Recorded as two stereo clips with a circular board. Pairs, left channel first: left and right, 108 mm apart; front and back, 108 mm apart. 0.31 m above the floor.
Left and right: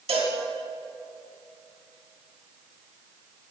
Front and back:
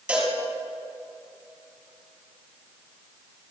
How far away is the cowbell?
About 2.5 m.